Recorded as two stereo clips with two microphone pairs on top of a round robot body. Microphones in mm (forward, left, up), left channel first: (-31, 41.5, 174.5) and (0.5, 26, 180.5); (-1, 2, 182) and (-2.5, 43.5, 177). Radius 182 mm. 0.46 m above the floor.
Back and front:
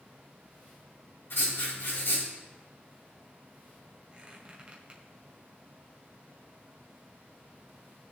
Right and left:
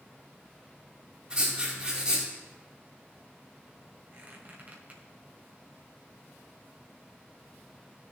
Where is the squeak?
35° left, 1.9 m.